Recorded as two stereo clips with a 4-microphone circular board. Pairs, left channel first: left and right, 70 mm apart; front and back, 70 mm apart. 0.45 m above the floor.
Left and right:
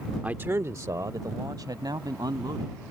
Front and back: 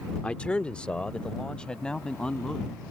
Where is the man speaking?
45° right; by 2.8 s 75° right.